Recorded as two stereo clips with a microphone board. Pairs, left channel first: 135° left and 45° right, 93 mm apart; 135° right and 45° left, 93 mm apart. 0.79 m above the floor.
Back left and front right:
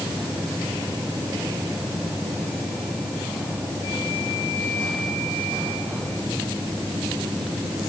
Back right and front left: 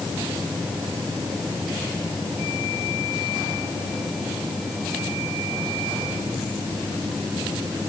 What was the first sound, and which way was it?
Only background noise.